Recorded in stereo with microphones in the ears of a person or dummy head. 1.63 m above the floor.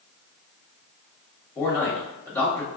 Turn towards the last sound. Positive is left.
turn(degrees=10)  # may be behind; listen again after turning